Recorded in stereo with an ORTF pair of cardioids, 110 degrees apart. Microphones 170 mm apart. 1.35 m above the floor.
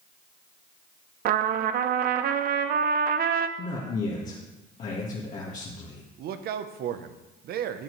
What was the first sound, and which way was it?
A trumpet, 60° right.